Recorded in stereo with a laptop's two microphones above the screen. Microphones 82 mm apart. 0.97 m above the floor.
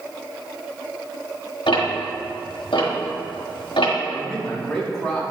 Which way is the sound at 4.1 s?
10° left (ahead or behind).